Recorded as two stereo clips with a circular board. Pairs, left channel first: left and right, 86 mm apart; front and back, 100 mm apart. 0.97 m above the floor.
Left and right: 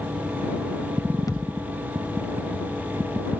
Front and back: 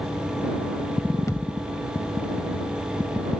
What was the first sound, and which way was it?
A thud, 50° left.